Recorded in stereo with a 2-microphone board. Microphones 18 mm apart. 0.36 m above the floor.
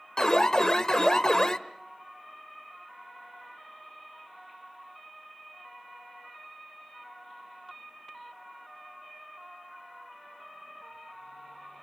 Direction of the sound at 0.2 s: 35° left (ahead or behind).